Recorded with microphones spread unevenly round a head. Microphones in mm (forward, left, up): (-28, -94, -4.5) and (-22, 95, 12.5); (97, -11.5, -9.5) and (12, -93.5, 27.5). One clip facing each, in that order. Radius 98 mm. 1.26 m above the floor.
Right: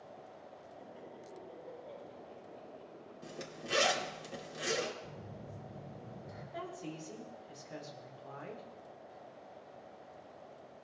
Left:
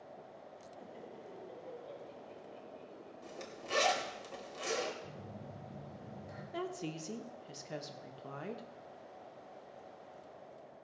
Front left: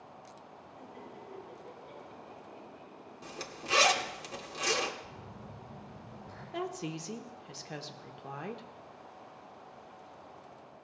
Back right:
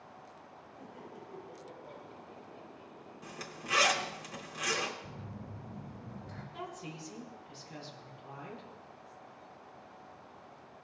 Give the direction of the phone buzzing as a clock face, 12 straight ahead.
6 o'clock.